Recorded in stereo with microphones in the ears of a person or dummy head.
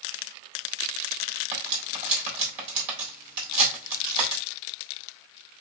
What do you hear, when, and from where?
1.5 s cutlery clinking: 35° right (ahead or behind), 1.4 m